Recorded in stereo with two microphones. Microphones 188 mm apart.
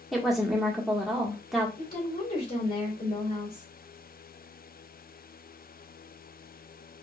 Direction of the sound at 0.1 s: Centre (ahead or behind).